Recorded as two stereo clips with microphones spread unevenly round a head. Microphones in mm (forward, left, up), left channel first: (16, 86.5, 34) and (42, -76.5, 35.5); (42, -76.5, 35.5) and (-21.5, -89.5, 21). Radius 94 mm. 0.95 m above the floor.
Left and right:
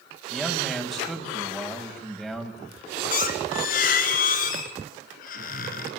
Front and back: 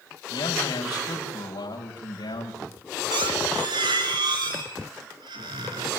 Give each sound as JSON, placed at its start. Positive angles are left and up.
{"t": 0.3, "sound": "a man speaking", "azimuth_deg": 10, "distance_m": 6.5}
{"t": 3.1, "sound": "a squeak", "azimuth_deg": 145, "distance_m": 3.0}